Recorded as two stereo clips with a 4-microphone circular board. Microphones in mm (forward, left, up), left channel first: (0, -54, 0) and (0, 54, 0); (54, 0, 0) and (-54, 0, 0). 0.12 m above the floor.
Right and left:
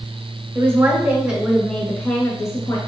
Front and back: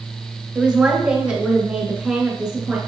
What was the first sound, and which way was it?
A woman speaking, 105° left.